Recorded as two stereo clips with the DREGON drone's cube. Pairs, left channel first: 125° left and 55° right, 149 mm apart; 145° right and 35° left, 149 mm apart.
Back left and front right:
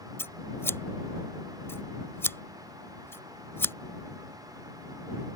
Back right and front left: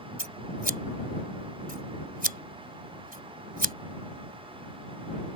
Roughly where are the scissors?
Ahead left.